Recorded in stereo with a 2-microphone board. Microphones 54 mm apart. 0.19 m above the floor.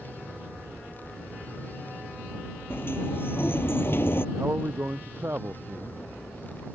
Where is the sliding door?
40° left (ahead or behind).